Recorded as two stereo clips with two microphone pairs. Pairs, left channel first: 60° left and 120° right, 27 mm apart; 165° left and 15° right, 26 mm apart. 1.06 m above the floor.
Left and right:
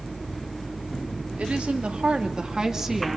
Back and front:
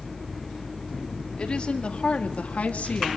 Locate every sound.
1.4 s a woman speaking: 145° right, 2.5 m; by 3.2 s 160° left, 1.8 m